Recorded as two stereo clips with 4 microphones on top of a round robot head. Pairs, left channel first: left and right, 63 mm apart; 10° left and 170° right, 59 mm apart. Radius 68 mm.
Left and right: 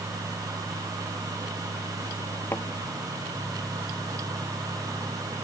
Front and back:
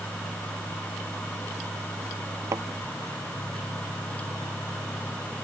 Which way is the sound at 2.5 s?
155° left.